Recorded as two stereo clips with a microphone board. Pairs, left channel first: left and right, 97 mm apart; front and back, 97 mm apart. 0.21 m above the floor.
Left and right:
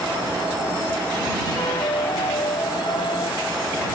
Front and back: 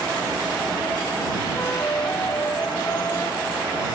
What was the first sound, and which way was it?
A flute, 60° left.